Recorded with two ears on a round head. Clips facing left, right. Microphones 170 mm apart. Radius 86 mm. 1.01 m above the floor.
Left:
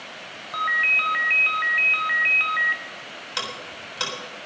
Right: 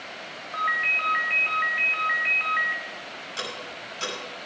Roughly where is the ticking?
Left.